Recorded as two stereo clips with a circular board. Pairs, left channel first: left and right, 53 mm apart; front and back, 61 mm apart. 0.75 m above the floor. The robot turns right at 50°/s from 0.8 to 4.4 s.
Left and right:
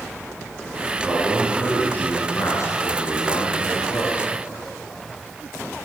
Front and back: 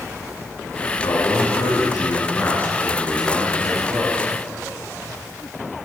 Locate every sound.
1.0 s a man speaking: 15° right, 9 m; by 4.3 s 150° left, 9 m